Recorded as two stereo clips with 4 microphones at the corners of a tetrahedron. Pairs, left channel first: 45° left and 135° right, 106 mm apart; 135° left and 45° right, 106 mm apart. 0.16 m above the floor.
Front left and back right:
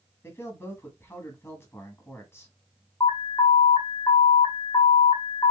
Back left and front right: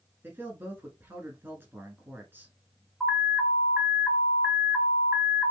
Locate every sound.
0.2 s a man speaking: 5° left, 1.3 m
3.0 s an alarm: 30° left, 1.3 m